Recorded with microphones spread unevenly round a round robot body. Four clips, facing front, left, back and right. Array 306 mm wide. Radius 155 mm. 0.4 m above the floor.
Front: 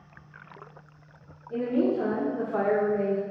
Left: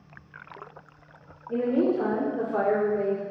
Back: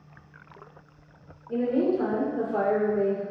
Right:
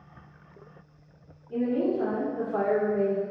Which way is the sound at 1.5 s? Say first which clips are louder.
Left 2 dB, back 1 dB; 125° left.